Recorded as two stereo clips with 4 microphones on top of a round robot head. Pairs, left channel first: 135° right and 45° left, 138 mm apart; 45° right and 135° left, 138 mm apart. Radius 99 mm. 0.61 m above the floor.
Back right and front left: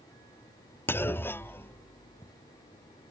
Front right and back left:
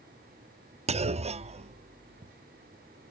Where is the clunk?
155° left.